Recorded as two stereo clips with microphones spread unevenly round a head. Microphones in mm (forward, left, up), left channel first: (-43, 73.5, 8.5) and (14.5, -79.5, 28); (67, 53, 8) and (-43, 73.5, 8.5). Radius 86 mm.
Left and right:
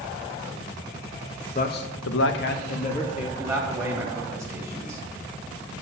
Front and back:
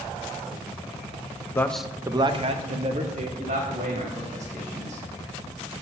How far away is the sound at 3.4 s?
About 1.9 m.